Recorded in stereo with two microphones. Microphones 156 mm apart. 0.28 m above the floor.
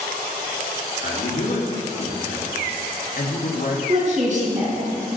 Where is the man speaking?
70° left (ahead or behind), 3 m.